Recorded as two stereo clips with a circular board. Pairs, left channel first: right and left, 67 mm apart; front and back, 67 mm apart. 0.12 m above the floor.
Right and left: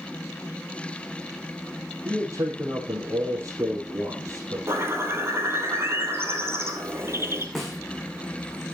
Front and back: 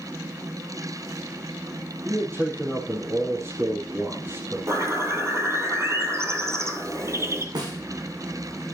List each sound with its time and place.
2.0 s a man speaking: 125° left, 4 m
4.7 s a bird: 140° left, 1.6 m
7.5 s a snare drum: straight behind, 3 m